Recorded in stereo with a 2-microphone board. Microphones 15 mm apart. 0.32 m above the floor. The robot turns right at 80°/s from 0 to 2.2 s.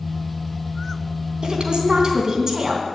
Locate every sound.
1.4 s a woman speaking: 100° right, 3 m; by 2.9 s 40° right, 3 m